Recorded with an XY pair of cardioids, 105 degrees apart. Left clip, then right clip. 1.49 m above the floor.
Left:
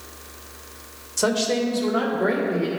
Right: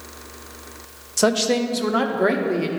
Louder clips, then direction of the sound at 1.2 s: Right 3 dB; 30° right.